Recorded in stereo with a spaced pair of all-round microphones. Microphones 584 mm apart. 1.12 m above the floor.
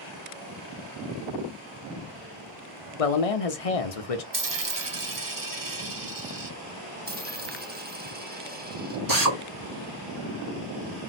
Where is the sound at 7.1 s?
20° right (ahead or behind), 0.8 m.